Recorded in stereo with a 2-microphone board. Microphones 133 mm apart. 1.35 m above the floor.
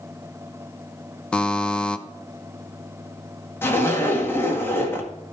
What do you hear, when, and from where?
1.3 s a buzzer: 5° left (ahead or behind), 0.6 m
3.6 s a zipper: 15° left (ahead or behind), 1.8 m